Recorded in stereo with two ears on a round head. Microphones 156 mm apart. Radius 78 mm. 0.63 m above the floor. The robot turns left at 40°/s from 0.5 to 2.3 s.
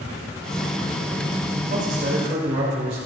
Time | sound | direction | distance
1.7 | a man speaking | 55° right (ahead or behind) | 2.5 m